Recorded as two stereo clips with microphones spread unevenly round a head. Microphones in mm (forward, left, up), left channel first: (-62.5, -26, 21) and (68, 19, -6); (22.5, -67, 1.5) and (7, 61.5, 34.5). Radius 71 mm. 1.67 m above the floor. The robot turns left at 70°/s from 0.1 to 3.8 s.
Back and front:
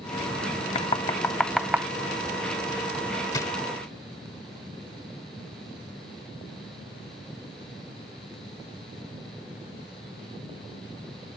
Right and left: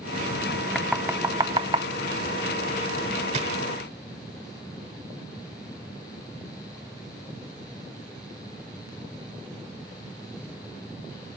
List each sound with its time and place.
0.8 s knocking: 175° left; by 1.9 s 100° left
3.3 s a drawer: 140° left; by 3.5 s 125° left